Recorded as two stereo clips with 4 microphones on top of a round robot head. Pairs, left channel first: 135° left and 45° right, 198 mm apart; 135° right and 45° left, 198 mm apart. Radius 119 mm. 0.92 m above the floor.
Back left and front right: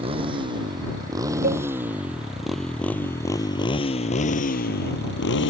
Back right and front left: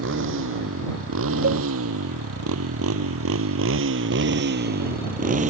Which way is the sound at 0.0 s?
20° left.